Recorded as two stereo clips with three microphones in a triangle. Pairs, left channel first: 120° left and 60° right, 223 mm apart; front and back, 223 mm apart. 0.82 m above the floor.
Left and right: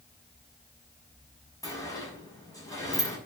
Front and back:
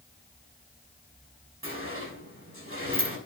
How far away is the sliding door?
About 6.5 m.